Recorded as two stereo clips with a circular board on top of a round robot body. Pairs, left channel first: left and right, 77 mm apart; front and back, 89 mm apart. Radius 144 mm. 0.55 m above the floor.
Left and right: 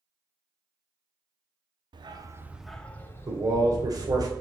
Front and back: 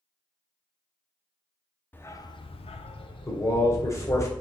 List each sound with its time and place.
1.9 s a dog barking: 70° right, 0.7 m; by 4.3 s 45° left, 1.9 m
3.3 s a man speaking: 55° right, 2 m